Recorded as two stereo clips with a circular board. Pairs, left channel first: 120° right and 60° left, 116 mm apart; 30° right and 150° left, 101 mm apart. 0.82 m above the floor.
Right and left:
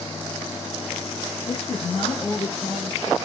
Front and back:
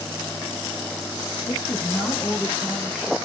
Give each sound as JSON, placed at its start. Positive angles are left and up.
{"t": 1.5, "sound": "a woman speaking", "azimuth_deg": -70, "distance_m": 0.7}